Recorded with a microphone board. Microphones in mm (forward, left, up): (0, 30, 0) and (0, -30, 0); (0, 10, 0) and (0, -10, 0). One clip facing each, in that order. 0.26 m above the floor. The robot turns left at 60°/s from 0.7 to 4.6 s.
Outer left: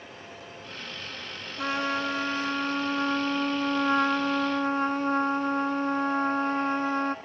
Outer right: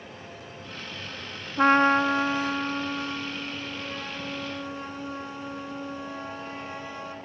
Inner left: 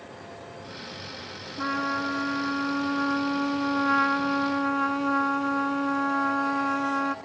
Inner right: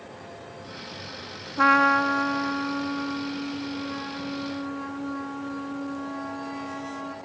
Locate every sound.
1.6 s a trumpet: 120° right, 0.7 m; by 7.2 s 60° left, 0.7 m